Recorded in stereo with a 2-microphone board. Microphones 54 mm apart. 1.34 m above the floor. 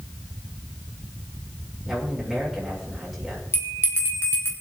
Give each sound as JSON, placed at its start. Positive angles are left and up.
{"t": 1.9, "sound": "a man speaking", "side_deg": 0, "distance_m": 6.0}
{"t": 3.5, "sound": "a bell", "side_deg": 50, "distance_m": 4.0}